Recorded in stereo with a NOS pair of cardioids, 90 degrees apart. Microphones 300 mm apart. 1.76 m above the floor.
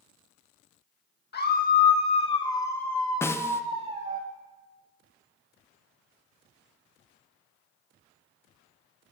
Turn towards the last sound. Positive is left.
turn(degrees=10)